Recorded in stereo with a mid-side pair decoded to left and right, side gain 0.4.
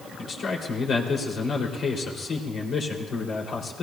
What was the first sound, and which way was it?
A man speaking, 65° left.